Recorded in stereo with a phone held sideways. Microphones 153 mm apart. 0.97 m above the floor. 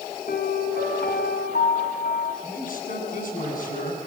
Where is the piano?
80° left, 4 m.